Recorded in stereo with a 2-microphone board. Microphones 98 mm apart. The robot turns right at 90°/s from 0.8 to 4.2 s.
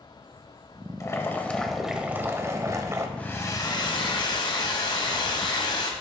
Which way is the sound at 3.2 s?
15° left.